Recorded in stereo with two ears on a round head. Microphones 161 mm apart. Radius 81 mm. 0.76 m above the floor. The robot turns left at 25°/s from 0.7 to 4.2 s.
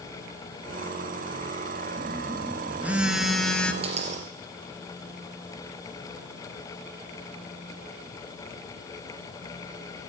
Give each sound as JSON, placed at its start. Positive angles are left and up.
{"t": 2.0, "sound": "a phone buzzing", "azimuth_deg": -145, "distance_m": 1.2}
{"t": 3.8, "sound": "a dropped coin", "side_deg": -35, "distance_m": 2.0}